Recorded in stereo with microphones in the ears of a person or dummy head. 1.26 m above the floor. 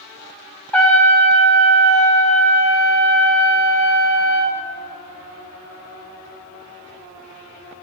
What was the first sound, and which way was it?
A trumpet, 5° left (ahead or behind).